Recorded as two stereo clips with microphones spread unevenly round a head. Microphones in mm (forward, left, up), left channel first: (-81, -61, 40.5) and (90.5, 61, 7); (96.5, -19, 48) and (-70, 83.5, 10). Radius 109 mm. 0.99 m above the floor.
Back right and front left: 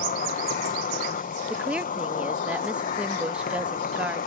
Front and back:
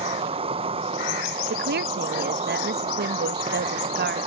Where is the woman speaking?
120° left.